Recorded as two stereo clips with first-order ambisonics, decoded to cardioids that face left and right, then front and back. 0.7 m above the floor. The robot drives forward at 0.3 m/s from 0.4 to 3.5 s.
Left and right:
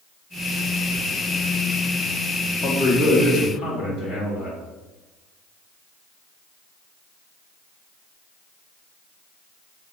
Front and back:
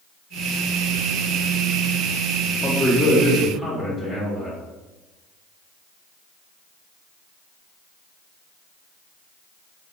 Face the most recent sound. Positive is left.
turn(degrees=110)